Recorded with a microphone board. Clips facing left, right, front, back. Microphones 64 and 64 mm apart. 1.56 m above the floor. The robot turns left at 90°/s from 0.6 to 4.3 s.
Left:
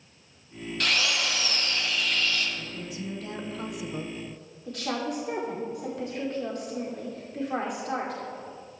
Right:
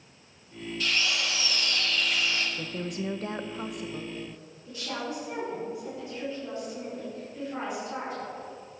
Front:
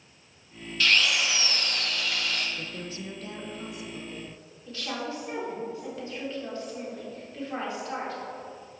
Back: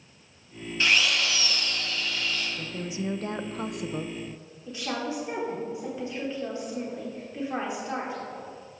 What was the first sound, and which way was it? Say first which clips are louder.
A drill: left 2 dB, even; 115° left.